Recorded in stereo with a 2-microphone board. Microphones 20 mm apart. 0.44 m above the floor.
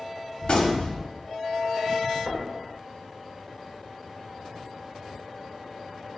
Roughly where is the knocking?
Right.